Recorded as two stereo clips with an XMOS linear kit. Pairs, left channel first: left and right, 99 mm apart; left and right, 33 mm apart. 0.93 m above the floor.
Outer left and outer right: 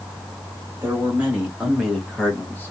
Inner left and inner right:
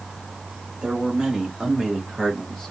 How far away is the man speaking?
About 1.4 m.